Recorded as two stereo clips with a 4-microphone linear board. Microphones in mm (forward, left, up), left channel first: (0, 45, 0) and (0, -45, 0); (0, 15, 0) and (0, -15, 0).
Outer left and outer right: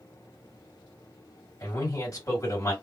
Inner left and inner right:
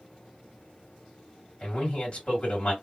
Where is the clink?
I don't hear a clink.